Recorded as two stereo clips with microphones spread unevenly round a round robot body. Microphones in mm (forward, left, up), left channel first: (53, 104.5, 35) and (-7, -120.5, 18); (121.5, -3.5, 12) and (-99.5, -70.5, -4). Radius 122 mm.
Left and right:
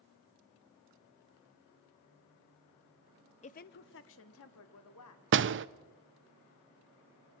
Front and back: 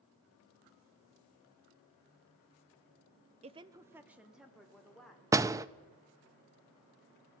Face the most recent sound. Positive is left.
turn(degrees=-90)